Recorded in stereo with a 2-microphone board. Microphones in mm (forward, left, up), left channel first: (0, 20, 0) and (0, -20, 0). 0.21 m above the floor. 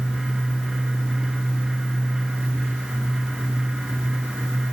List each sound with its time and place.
Only background noise.